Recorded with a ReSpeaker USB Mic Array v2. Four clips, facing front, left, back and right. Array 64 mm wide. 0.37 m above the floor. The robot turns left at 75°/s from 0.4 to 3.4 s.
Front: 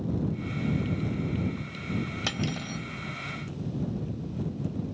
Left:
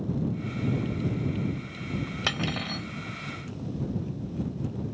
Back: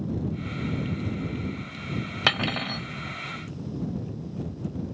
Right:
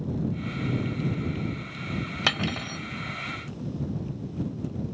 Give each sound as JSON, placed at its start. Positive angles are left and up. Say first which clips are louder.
{"t": 2.3, "sound": "cutlery clinking", "louder": "right 3 dB, back 6 dB", "azimuth_deg": -160}